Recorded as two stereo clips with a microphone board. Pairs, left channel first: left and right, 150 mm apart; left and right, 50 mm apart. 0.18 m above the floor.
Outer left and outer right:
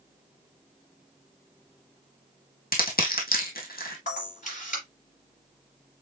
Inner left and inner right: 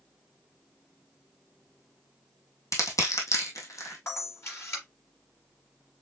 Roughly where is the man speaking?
No man speaking in this recording.